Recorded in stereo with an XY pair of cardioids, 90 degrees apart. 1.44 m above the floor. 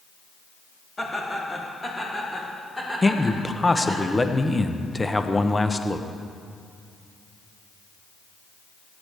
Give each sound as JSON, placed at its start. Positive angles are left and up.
{"t": 1.0, "sound": "laughter", "azimuth_deg": 25, "distance_m": 2.5}
{"t": 3.0, "sound": "a man speaking", "azimuth_deg": 15, "distance_m": 0.8}